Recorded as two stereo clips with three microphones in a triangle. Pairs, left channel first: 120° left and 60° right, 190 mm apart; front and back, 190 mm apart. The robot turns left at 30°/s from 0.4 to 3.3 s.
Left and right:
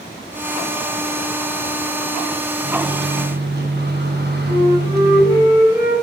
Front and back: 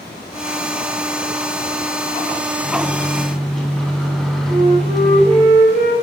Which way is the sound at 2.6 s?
70° right.